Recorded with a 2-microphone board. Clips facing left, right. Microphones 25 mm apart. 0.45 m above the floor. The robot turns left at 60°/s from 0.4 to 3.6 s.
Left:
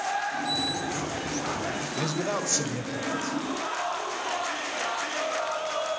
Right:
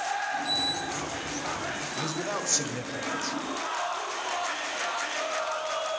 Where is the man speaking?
30° left, 1.5 m; by 3.4 s 55° right, 1.5 m.